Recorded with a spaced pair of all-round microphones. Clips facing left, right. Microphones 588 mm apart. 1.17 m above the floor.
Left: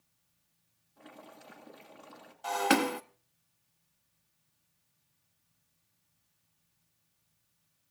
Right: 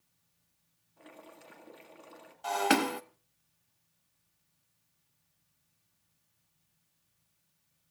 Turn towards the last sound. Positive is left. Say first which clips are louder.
# even
turn(degrees=0)  # may be behind; listen again after turning